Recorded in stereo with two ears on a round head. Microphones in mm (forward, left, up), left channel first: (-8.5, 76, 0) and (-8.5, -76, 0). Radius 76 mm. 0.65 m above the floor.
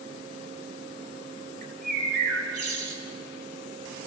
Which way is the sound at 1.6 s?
55° right (ahead or behind).